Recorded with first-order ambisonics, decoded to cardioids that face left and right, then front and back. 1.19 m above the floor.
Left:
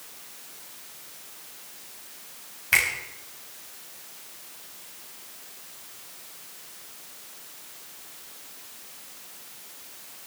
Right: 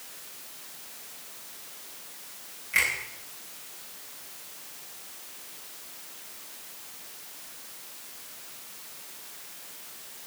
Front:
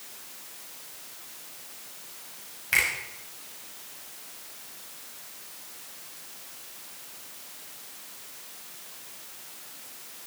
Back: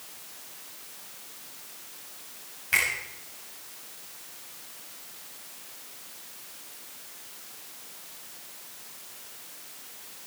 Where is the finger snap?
85° left, 7 m.